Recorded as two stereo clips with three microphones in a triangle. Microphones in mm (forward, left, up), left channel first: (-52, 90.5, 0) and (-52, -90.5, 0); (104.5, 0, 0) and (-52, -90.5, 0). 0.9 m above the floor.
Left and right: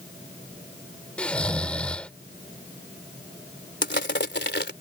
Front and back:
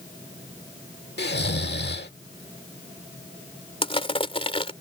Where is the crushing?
85° left.